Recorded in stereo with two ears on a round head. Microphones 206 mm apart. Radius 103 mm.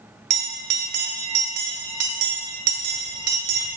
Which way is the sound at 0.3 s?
75° right (ahead or behind).